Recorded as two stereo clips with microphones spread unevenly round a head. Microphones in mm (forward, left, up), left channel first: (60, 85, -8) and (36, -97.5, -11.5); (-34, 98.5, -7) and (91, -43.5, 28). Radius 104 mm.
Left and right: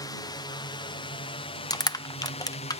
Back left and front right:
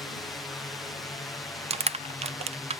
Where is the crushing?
10° left.